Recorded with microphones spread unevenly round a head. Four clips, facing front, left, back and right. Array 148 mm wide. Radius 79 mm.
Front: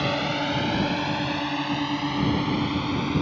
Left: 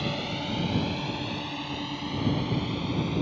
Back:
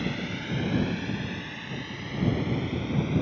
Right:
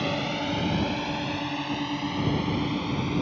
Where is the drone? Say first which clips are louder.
Right 4 dB, front 7 dB; 20° right.